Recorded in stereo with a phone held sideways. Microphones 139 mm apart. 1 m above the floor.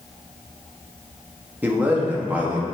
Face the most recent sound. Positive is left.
turn(degrees=-15)  # may be behind; listen again after turning